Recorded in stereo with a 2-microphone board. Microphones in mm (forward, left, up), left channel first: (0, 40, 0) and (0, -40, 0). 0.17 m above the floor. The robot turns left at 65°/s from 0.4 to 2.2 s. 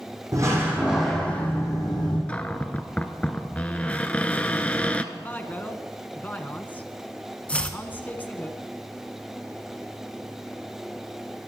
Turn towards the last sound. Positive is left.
turn(degrees=15)  # may be behind; listen again after turning